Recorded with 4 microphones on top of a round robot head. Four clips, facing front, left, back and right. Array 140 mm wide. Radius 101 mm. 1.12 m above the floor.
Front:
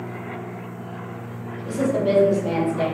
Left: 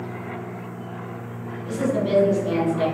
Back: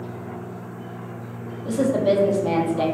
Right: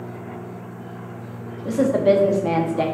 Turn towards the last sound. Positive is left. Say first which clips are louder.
# right 6 dB, back 2 dB
turn(degrees=-100)